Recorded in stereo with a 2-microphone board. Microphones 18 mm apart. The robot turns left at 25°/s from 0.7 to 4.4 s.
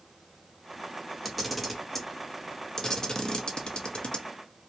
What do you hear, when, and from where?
1.2 s a camera shutter: 5° right (ahead or behind), 0.6 m; by 4.2 s 60° left (ahead or behind), 0.6 m